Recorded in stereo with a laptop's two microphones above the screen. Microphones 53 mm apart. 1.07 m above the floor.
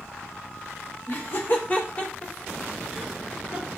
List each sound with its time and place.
1.1 s laughter: 40° left (ahead or behind), 0.9 m; by 3.7 s 15° right (ahead or behind), 1.2 m